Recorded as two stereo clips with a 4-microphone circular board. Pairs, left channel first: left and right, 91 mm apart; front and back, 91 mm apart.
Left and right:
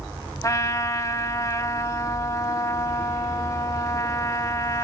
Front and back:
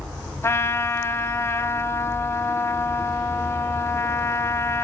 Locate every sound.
0.4 s a trumpet: 50° left, 1.2 m